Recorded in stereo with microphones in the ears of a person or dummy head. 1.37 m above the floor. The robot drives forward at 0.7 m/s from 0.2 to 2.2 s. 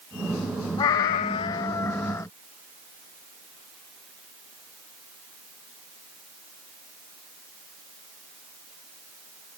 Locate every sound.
0.8 s a cat meowing: 15° left (ahead or behind)